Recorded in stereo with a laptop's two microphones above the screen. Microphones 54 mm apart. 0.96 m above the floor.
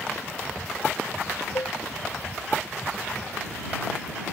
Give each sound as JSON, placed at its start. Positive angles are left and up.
{"t": 1.6, "sound": "a cowbell", "side_deg": 75}